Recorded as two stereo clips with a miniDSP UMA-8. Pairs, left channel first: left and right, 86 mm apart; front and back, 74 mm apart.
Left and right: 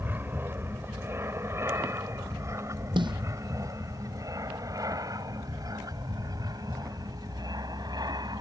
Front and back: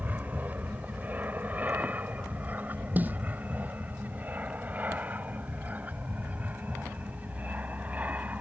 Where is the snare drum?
115° right.